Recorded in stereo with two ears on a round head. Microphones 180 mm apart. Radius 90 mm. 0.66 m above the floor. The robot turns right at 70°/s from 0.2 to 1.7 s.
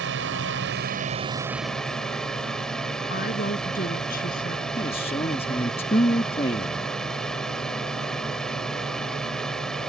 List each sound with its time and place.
0.0 s a drone: 100° right; by 9.9 s 5° left
3.1 s a woman speaking: 45° left (ahead or behind)
4.8 s a man speaking: 30° left (ahead or behind)